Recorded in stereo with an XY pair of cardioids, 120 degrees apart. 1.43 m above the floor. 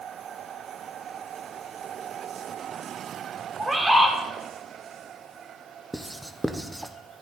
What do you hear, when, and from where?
3.6 s a bird: 20° right, 3 m
5.9 s writing: 5° right, 0.8 m